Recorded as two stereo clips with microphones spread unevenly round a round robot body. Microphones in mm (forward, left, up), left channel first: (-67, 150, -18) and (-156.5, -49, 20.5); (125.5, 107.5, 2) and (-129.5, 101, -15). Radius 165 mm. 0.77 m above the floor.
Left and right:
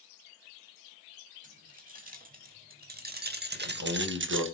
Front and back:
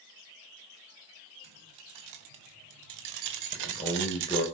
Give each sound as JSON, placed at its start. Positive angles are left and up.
{"t": 1.4, "sound": "keys jangling", "azimuth_deg": -165, "distance_m": 3.0}
{"t": 3.5, "sound": "a man speaking", "azimuth_deg": -75, "distance_m": 4.0}